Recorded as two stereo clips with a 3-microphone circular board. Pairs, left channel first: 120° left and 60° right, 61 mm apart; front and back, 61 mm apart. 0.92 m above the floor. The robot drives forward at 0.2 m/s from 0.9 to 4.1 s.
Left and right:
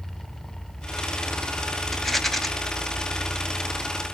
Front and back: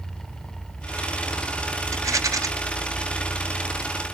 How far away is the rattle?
About 0.9 m.